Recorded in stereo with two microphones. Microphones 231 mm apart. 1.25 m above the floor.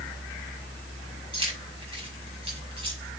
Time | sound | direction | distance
1.3 | keys jangling | 25° right (ahead or behind) | 6.5 m